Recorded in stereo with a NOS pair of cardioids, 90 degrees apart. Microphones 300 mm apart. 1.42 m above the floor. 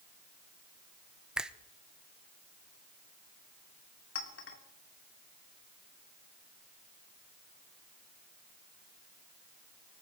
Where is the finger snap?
5° right, 0.8 m.